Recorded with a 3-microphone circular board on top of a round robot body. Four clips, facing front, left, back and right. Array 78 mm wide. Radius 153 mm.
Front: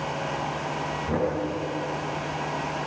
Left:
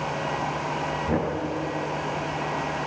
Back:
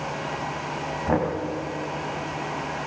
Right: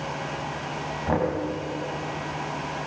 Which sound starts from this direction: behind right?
Knocking, at 1.1 s.